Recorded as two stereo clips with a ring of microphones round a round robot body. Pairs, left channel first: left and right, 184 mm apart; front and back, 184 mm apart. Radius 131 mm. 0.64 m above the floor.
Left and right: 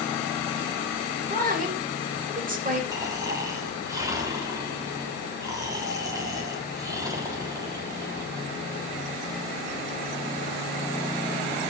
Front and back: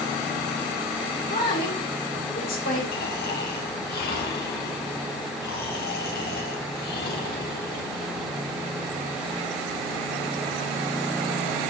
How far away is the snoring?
About 1.9 m.